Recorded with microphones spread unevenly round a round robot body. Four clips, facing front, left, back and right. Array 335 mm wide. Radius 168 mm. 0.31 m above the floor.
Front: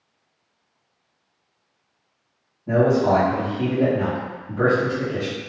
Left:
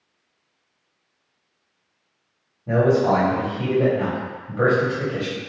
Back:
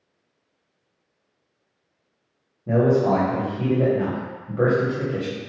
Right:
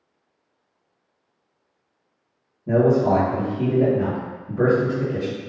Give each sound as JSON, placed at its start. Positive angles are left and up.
{"t": 2.7, "sound": "a man speaking", "azimuth_deg": -170, "distance_m": 1.6}